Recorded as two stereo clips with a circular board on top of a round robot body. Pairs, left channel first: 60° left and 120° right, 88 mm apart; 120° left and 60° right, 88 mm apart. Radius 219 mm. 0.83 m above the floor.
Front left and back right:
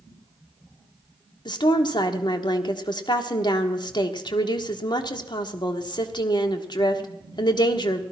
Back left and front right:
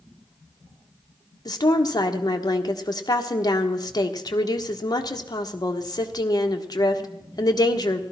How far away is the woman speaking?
About 1.6 m.